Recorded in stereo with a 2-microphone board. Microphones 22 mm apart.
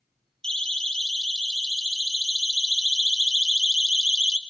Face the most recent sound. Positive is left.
turn(degrees=-30)  # may be behind; listen again after turning